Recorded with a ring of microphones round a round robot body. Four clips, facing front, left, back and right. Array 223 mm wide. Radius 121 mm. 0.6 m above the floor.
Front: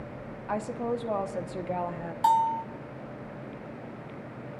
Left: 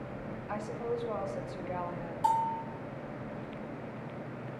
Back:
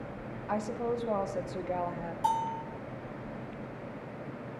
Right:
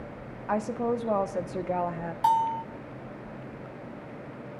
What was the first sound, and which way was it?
A woman speaking, 80° right.